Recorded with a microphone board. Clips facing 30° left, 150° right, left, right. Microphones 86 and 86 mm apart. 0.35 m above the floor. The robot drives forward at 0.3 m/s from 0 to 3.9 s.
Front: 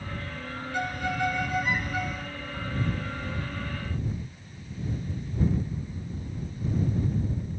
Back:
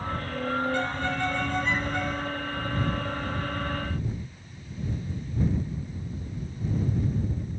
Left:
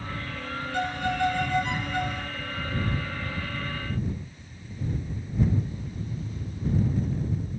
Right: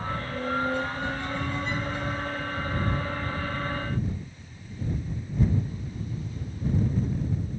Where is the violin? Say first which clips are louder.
Back 1 dB, left 3 dB; 110° left; by 2.3 s 115° left.